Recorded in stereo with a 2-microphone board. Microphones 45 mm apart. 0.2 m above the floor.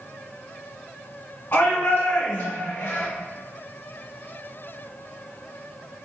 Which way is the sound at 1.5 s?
45° left (ahead or behind).